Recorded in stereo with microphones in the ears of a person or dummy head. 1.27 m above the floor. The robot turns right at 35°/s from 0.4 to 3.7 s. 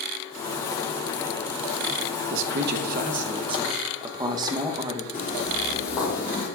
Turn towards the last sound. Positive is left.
turn(degrees=15)  # may be behind; listen again after turning